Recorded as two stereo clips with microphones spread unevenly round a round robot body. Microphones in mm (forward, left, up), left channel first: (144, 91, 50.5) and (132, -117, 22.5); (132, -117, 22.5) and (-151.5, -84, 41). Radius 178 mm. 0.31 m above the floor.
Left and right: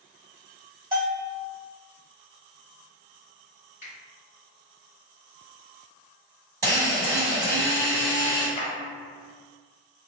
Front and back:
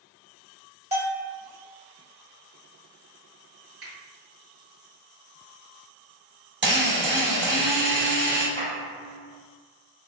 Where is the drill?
150° right, 1.5 m.